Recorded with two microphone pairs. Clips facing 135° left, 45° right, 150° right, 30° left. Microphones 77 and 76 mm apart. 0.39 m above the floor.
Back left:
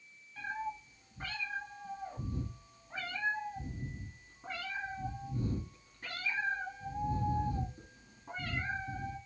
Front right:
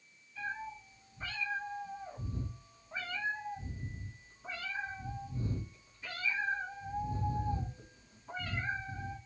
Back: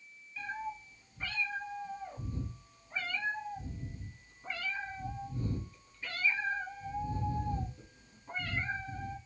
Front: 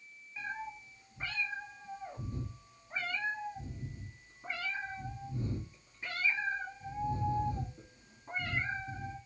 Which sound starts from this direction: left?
A cat meowing, at 0.4 s.